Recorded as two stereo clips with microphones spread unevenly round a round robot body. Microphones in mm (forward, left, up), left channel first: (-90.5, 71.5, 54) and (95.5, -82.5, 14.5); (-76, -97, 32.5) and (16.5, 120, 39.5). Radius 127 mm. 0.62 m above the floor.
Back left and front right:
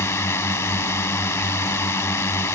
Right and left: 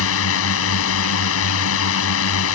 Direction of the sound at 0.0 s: 140° right.